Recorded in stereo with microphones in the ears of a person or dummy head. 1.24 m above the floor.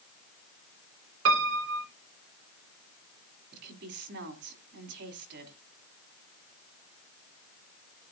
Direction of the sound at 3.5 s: 65° right (ahead or behind).